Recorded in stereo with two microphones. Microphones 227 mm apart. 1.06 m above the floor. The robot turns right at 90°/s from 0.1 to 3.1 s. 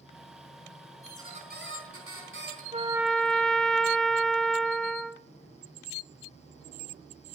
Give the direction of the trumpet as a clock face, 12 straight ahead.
1 o'clock.